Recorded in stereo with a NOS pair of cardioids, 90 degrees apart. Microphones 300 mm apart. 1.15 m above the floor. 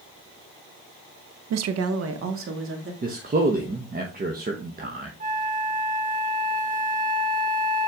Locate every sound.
1.5 s a woman speaking: 65° right, 0.7 m; by 2.9 s 40° right, 2.5 m
3.0 s a man speaking: 30° right, 1.3 m
5.2 s a flute: 25° right, 0.8 m